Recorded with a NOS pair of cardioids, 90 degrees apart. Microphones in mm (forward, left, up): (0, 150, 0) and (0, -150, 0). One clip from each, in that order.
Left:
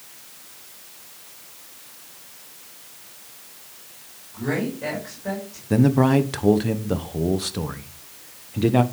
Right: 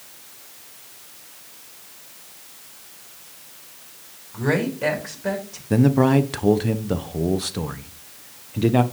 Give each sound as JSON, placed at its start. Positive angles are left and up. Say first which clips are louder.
{"t": 4.3, "sound": "a woman speaking", "louder": "right 4 dB", "azimuth_deg": -55, "distance_m": 7.5}
{"t": 5.7, "sound": "a man speaking", "louder": "right 1 dB", "azimuth_deg": 0, "distance_m": 1.2}